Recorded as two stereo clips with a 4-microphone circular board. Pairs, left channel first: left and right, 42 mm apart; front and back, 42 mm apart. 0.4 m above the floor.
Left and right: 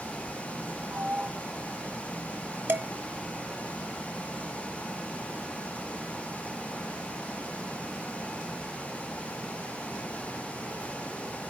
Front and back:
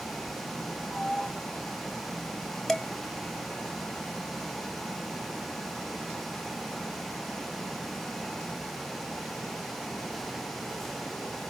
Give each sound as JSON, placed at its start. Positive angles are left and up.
{"t": 0.9, "sound": "a sliding door", "azimuth_deg": -75, "distance_m": 2.5}
{"t": 2.7, "sound": "dishes clattering", "azimuth_deg": -80, "distance_m": 1.7}